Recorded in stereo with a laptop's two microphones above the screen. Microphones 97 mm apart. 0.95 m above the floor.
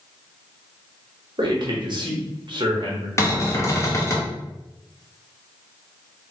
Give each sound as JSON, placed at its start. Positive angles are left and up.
{"t": 1.4, "sound": "a man speaking", "side_deg": -50, "distance_m": 0.9}
{"t": 3.2, "sound": "a cupboard door", "side_deg": 30, "distance_m": 0.6}